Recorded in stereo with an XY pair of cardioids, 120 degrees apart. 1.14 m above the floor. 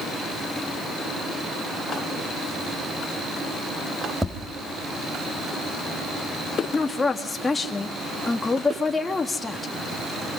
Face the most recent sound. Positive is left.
turn(degrees=20)